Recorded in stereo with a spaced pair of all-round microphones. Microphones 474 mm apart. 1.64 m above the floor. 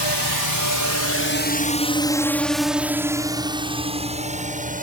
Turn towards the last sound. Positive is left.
turn(degrees=-15)  # may be behind; listen again after turning